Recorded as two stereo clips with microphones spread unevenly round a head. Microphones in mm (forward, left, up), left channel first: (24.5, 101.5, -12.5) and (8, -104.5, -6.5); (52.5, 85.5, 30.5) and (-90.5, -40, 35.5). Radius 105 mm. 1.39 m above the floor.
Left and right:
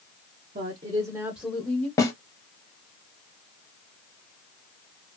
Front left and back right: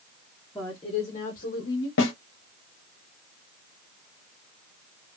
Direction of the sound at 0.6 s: 45° right.